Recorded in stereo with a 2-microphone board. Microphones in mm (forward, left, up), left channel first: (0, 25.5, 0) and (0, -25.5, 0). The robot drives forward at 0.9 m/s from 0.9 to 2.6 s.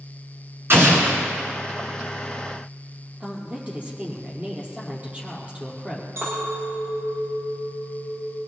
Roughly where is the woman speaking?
Right.